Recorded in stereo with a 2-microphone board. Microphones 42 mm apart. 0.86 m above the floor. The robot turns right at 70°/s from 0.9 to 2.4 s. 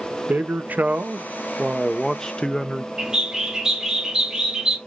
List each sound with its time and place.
0.3 s a man speaking: 75° right, 0.5 m; by 2.9 s 30° left, 0.5 m
3.0 s a bird: 15° right (ahead or behind), 0.9 m